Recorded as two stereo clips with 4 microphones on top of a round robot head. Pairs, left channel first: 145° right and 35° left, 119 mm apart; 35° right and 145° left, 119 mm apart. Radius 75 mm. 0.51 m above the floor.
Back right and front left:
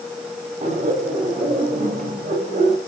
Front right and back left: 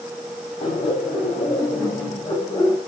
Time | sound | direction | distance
0.6 | laughter | straight ahead | 4 m